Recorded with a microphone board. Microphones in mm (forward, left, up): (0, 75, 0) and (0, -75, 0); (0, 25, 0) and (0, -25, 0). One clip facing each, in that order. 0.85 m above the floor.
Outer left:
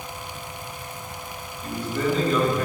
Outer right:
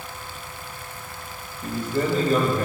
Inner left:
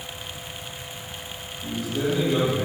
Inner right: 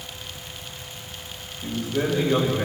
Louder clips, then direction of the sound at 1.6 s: Outer right 1 dB, inner right 1 dB; 60° right (ahead or behind).